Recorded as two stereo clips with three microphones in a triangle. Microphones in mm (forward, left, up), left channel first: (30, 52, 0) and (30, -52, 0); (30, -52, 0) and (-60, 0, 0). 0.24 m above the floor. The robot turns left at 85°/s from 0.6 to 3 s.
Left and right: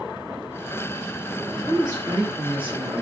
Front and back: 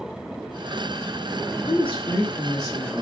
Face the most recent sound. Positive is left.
turn(degrees=-115)